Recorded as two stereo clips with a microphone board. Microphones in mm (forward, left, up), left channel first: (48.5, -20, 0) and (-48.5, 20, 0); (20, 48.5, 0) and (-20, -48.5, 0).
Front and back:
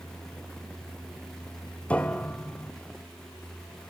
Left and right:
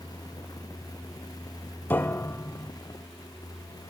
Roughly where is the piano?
Ahead left.